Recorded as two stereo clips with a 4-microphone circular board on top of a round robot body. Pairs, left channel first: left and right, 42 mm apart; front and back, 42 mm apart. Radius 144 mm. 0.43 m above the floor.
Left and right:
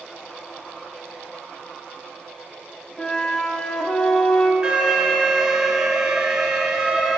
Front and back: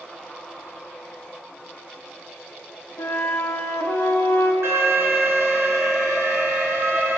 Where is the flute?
25° left, 1.6 m.